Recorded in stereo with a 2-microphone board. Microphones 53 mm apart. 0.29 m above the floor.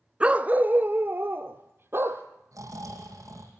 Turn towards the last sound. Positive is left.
turn(degrees=-80)